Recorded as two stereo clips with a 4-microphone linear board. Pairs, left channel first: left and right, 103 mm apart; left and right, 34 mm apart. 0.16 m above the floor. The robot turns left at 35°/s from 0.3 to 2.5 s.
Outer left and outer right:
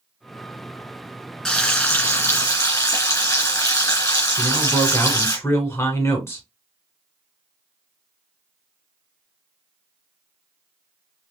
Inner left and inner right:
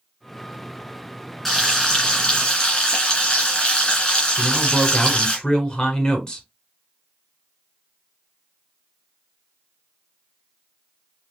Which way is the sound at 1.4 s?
175° left.